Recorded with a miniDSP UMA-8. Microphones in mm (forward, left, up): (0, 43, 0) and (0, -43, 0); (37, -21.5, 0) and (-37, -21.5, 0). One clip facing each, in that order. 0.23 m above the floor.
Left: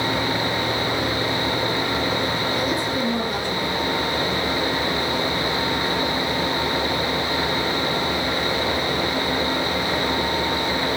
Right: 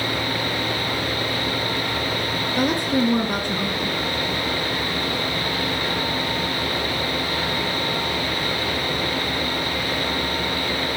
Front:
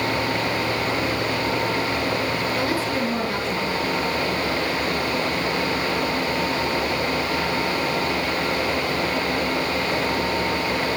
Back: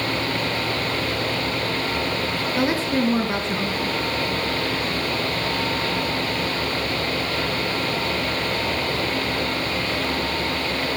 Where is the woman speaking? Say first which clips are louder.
Right 2 dB, back 2 dB; 115° right, 3.5 m.